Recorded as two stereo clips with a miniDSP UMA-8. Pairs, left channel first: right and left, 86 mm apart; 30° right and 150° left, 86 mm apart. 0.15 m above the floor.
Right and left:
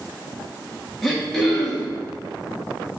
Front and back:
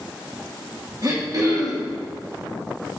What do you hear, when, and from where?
1.0 s throat clearing: 175° right, 1.8 m